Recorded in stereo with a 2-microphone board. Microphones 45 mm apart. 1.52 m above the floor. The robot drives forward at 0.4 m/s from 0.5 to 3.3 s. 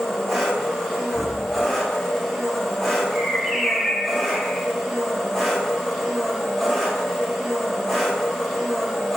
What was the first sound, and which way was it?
An engine running, 5° left (ahead or behind).